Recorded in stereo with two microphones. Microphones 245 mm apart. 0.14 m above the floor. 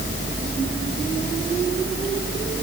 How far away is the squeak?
I don't hear a squeak.